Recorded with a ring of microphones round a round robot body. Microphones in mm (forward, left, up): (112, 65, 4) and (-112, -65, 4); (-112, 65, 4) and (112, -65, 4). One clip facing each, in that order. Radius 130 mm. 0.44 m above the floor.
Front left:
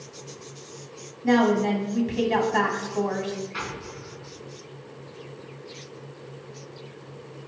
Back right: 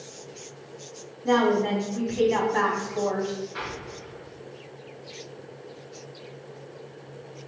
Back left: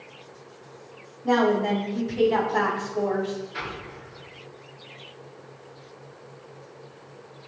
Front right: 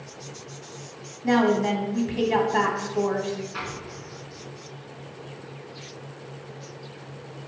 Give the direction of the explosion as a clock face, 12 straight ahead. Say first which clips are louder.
Even, front right 1 dB; 11 o'clock.